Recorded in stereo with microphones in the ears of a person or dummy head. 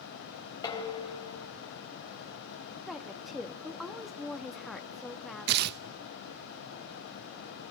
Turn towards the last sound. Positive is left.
turn(degrees=-55)  # may be behind; listen again after turning